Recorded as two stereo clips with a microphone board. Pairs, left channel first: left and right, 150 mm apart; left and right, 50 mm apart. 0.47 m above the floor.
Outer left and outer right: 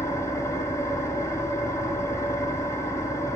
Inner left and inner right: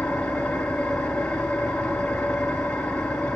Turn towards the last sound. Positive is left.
turn(degrees=20)  # may be behind; listen again after turning